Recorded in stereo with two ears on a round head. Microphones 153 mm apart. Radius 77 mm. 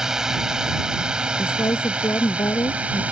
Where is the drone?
5° right (ahead or behind); by 3.1 s 10° right (ahead or behind).